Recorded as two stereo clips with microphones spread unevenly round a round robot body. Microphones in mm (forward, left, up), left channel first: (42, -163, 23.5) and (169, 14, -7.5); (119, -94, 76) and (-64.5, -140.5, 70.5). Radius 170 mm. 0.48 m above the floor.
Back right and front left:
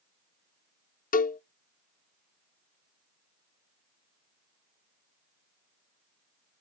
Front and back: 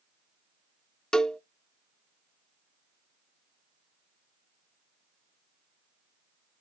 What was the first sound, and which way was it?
A cowbell, 75° right.